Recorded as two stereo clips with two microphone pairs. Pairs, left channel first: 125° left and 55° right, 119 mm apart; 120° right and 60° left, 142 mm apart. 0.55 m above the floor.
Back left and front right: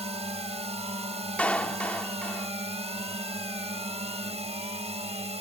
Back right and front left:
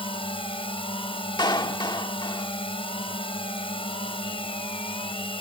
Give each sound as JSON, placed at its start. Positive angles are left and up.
{"t": 0.0, "sound": "a drone", "azimuth_deg": -75}
{"t": 1.4, "sound": "a clap", "azimuth_deg": -165}